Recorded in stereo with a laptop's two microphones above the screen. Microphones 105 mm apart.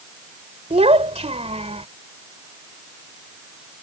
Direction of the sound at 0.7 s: 90° right.